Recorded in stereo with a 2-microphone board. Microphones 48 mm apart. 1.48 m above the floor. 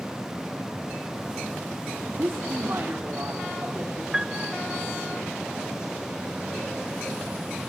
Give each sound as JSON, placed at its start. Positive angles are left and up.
{"t": 2.2, "sound": "a woman speaking", "side_deg": -55, "distance_m": 3.0}
{"t": 4.1, "sound": "a piano", "side_deg": -10, "distance_m": 1.7}